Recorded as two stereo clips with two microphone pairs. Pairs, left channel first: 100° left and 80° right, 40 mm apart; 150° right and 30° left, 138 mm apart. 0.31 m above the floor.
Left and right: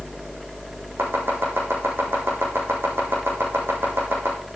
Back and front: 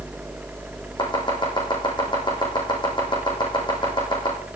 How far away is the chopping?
About 3.5 m.